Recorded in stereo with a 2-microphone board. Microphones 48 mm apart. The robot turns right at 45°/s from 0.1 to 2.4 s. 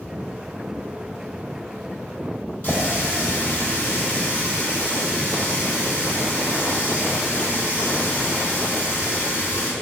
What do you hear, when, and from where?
2.6 s a running tap: 30° left (ahead or behind), 2.0 m